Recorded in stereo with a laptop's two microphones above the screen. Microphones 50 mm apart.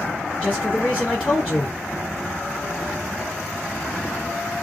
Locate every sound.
0.4 s a man speaking: 20° left (ahead or behind), 2.5 m